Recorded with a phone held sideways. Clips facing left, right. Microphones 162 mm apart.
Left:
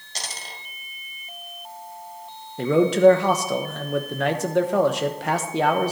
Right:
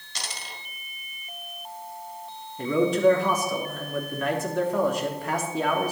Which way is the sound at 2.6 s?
80° left.